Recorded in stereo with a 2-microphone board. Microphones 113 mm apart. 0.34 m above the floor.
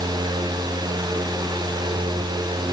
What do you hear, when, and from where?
Only background noise.